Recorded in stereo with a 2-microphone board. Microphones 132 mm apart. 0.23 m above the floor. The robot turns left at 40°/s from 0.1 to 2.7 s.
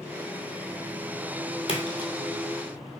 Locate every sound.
1.7 s a splash: 50° left (ahead or behind), 1.4 m; by 2.1 s 30° left (ahead or behind), 1.4 m